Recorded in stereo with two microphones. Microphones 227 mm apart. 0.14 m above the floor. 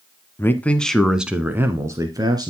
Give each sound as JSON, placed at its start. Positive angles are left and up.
{"t": 0.4, "sound": "a man speaking", "side_deg": 10, "distance_m": 1.1}